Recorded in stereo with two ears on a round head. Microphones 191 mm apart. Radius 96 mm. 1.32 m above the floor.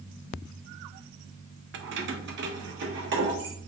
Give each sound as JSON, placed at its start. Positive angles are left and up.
{"t": 1.7, "sound": "keys jangling", "side_deg": -60, "distance_m": 0.5}